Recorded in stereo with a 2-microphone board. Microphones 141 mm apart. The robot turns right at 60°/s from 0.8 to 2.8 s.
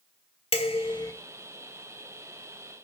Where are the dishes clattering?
45° left (ahead or behind), 1.4 m; by 1.1 s 25° left (ahead or behind), 1.4 m.